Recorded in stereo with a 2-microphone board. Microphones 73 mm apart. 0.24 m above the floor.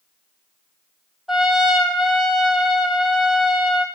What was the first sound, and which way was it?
A trumpet, 5° right (ahead or behind).